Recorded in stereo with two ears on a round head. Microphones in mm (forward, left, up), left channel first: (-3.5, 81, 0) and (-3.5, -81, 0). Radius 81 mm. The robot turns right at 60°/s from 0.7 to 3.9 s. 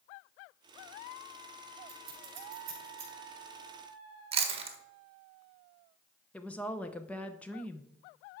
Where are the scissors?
80° right, 3.5 m; by 3.1 s 25° right (ahead or behind), 3.5 m.